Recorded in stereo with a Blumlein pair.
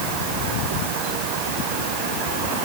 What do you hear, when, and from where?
Only background noise.